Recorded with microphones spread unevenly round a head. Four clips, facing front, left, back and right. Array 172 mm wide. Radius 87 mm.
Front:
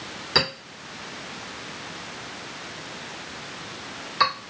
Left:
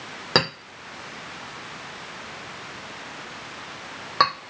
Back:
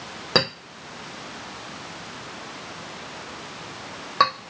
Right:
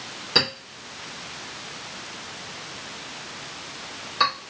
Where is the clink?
140° left, 1.1 m.